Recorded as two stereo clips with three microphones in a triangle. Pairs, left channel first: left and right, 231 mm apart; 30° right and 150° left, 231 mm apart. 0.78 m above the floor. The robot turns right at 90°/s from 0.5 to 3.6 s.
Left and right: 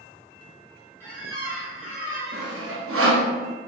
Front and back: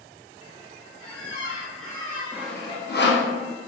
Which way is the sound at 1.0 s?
170° left.